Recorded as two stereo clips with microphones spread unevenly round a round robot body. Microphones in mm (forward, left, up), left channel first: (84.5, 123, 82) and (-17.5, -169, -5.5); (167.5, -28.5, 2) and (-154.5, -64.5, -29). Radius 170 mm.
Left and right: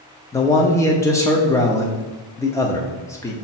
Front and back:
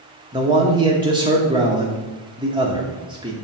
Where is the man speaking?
Straight behind, 0.8 m.